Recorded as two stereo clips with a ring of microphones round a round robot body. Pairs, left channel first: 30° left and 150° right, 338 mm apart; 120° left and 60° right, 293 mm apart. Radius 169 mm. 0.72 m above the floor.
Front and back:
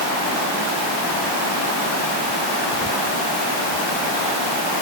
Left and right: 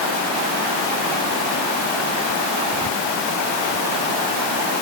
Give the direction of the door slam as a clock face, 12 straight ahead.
I don't hear a door slam.